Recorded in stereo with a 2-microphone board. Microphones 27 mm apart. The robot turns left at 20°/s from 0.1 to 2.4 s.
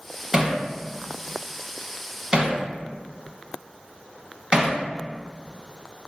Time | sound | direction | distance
0.3 | hammering | 15° right (ahead or behind) | 0.7 m